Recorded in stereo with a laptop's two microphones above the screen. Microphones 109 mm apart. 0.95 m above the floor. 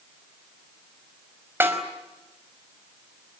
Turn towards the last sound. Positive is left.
turn(degrees=-20)  # may be behind; listen again after turning